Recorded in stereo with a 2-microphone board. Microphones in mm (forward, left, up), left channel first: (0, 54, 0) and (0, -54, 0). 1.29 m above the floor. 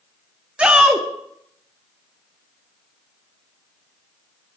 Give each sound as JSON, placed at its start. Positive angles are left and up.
{"t": 0.6, "sound": "a shout", "side_deg": -10, "distance_m": 0.7}